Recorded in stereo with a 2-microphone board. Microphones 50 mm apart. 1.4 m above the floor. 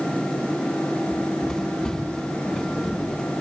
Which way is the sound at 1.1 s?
10° left (ahead or behind).